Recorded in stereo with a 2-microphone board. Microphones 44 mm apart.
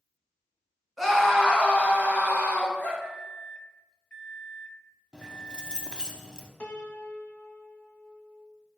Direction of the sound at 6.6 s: 35° left (ahead or behind).